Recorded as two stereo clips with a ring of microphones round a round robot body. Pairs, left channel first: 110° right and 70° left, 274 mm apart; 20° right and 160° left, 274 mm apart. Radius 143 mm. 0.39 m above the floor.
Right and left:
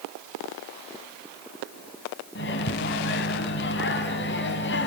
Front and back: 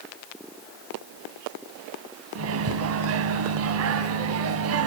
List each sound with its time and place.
2.4 s a microwave: 165° right, 3 m